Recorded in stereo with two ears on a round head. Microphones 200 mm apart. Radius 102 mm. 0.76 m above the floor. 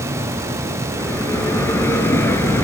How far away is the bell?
About 1.9 m.